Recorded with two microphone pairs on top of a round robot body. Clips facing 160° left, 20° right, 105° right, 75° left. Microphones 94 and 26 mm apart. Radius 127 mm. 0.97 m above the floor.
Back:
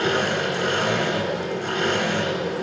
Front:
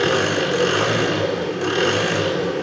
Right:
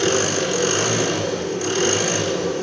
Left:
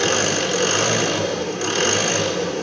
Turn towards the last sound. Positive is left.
turn(degrees=5)